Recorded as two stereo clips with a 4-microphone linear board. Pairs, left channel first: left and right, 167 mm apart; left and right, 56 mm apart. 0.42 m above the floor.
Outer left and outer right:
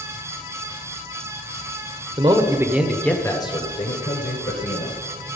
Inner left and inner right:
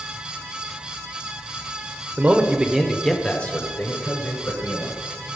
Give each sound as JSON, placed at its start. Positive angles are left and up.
{"t": 2.2, "sound": "a man speaking", "side_deg": -35, "distance_m": 1.6}